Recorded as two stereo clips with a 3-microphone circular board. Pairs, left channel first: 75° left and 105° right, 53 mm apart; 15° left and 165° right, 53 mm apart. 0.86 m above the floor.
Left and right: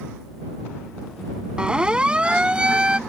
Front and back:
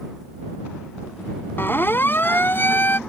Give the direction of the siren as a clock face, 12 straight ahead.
1 o'clock.